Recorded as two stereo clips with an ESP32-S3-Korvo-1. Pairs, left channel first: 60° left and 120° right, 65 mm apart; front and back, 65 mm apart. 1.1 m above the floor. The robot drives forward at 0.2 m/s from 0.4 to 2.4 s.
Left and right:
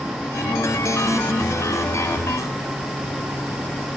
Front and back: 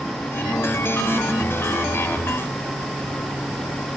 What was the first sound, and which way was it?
Only background noise.